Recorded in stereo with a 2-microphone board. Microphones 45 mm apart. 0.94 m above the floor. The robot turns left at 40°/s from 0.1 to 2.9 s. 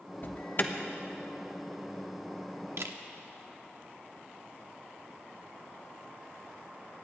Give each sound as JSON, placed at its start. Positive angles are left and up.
{"t": 0.2, "sound": "an alarm", "side_deg": 45, "distance_m": 0.9}
{"t": 2.8, "sound": "a camera shutter", "side_deg": -70, "distance_m": 1.0}